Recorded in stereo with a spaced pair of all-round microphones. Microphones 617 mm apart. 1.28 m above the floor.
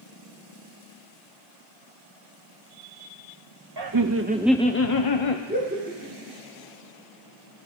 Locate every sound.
3.8 s laughter: 40° right (ahead or behind), 0.8 m; by 5.4 s 50° left (ahead or behind), 0.8 m
5.5 s laughter: 15° right (ahead or behind), 5 m